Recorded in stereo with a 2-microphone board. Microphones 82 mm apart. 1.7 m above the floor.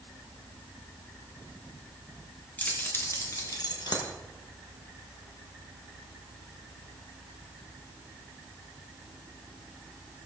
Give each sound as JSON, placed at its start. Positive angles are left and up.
{"t": 2.6, "sound": "keys jangling", "side_deg": 20, "distance_m": 1.6}